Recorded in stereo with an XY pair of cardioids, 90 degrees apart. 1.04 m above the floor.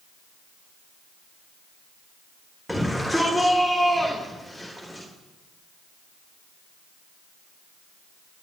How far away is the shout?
About 3 m.